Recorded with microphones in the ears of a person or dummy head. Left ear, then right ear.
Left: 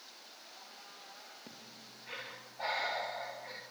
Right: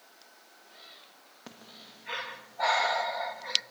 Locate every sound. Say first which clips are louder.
1.5 s breathing: right 3 dB; 50° right (ahead or behind), 2 m